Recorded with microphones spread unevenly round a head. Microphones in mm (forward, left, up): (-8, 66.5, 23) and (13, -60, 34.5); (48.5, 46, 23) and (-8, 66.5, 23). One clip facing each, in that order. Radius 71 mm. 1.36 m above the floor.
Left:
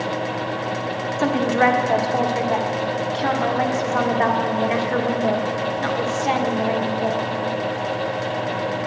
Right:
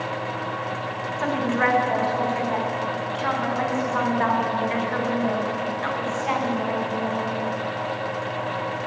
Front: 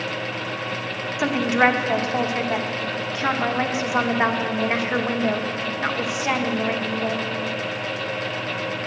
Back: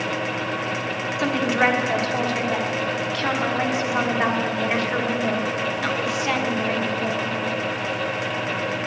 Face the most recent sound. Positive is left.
turn(degrees=50)